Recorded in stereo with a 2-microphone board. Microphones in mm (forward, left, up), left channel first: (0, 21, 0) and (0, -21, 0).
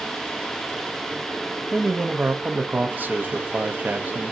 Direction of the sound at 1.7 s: 45° right (ahead or behind).